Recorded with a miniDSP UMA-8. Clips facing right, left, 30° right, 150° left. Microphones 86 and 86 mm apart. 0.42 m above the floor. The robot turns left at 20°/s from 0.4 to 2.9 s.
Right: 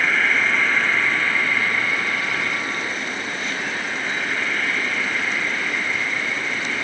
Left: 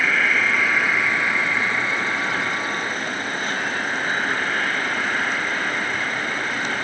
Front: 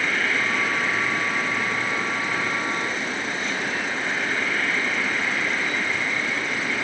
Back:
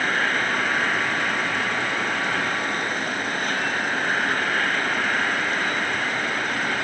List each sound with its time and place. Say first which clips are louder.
0.0 s an insect: even, back 1 dB; straight behind, 3 m; by 6.8 s 130° left, 3 m